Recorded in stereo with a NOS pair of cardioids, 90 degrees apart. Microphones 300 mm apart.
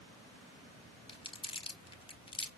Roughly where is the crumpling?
Ahead.